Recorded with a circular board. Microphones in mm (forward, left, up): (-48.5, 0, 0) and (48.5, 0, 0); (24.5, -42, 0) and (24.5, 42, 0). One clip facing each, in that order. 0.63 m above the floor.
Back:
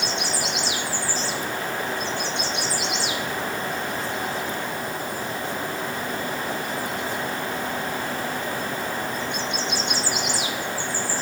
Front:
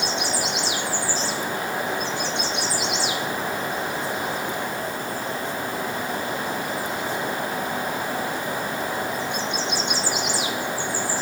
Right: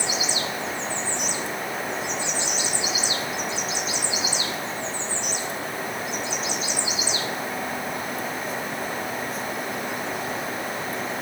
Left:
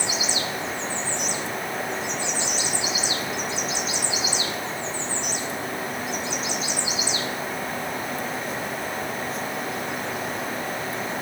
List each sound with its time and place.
Only background noise.